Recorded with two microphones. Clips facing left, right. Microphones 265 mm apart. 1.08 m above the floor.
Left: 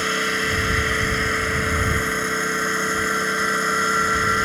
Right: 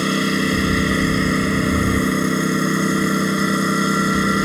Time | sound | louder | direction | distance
0.0 | a lawn mower | right 8 dB | 50° right (ahead or behind) | ?